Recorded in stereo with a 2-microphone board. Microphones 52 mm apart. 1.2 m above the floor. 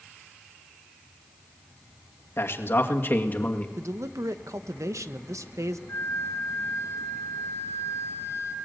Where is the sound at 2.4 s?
55° left (ahead or behind), 2 m; by 3.7 s 30° left (ahead or behind), 2 m.